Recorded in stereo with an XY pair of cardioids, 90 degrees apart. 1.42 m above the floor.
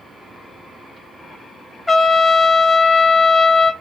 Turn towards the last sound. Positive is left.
turn(degrees=20)